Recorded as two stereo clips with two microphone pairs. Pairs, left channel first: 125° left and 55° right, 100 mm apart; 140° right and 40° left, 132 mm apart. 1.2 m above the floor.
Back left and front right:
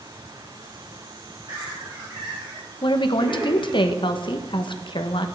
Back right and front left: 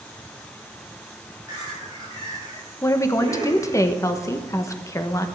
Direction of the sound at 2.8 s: 155° left.